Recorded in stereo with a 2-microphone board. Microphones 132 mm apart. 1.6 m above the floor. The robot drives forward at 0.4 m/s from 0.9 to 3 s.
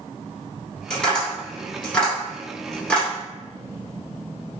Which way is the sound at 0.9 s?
5° left (ahead or behind).